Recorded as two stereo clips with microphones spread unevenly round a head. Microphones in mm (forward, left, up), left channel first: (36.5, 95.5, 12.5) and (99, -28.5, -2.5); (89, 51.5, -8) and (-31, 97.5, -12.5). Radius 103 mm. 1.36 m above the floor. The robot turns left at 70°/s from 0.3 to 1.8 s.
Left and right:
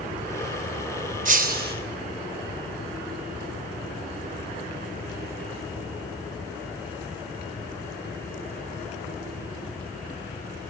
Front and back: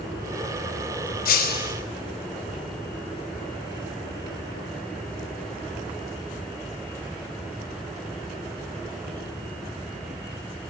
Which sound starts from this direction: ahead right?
Breaking glass, at 1.2 s.